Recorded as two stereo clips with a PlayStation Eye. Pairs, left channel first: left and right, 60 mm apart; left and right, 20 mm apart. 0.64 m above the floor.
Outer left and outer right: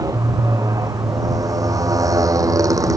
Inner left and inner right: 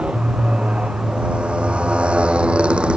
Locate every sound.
0.0 s a motorcycle: 85° right; by 3.0 s 80° right